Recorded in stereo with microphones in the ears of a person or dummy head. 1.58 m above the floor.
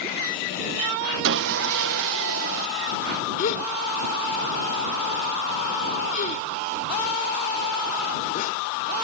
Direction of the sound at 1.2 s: 60° right (ahead or behind).